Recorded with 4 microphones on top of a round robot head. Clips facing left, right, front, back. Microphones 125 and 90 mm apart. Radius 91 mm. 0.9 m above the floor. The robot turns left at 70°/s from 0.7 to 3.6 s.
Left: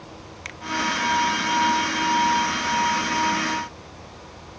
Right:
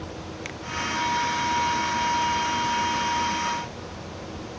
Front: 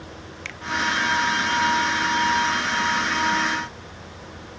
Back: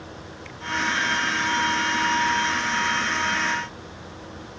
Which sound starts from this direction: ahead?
A finger snap, at 0.5 s.